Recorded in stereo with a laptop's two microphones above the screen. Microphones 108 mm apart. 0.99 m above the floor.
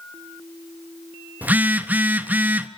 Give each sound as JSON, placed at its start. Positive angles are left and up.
{"t": 1.4, "sound": "a phone buzzing", "side_deg": -15, "distance_m": 0.9}